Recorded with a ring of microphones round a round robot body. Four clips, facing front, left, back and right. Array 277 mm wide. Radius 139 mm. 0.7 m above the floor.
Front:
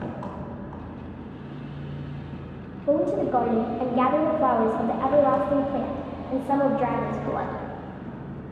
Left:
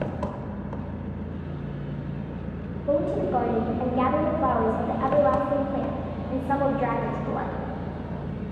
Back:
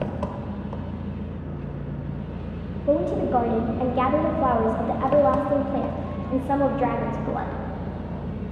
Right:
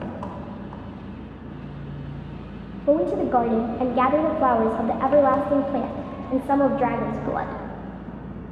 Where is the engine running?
145° left, 1.0 m.